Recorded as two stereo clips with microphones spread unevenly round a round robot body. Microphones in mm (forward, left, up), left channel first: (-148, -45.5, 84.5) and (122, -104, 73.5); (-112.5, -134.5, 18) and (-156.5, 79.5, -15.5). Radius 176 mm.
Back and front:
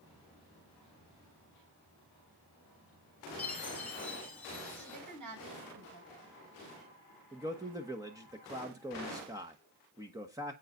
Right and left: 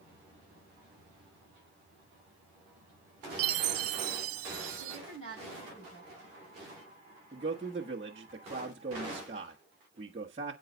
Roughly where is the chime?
Left.